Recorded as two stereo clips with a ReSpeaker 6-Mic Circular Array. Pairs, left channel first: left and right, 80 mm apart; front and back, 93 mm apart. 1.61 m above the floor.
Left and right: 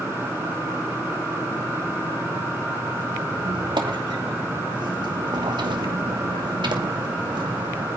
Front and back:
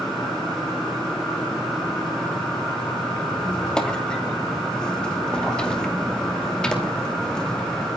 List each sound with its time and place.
3.3 s a squeak: 80° right, 2.5 m